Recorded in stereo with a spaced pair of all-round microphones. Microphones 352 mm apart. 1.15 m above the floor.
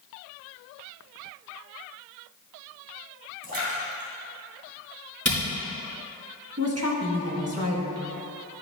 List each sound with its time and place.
3.4 s a splash: 80° right, 2 m
5.2 s a camera shutter: 45° right (ahead or behind), 2.5 m
6.6 s a woman speaking: 45° right (ahead or behind), 1.6 m